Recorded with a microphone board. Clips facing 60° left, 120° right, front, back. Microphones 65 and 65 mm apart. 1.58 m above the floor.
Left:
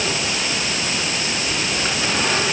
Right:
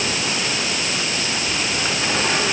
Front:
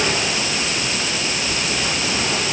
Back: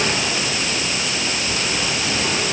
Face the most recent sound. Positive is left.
No sound to turn to.